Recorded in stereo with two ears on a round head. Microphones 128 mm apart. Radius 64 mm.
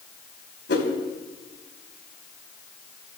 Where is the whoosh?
75° left (ahead or behind), 3.5 m.